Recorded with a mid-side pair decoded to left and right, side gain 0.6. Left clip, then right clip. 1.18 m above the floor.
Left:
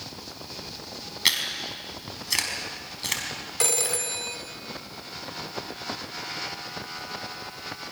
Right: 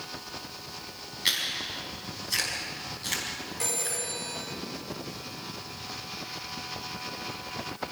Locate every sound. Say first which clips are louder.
1.2 s chewing: left 3 dB; 40° left, 5.5 m
3.6 s a phone ringing: left 7 dB; 50° left, 2.5 m